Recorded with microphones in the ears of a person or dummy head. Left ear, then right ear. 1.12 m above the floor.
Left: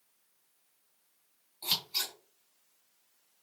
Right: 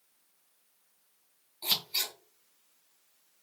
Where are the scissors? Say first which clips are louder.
Right 2 dB; 5° right (ahead or behind), 2.5 m.